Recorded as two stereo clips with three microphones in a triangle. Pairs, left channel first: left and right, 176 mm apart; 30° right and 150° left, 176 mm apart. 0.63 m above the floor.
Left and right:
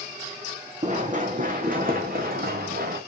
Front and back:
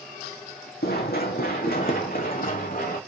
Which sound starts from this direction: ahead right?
Running footsteps, at 0.8 s.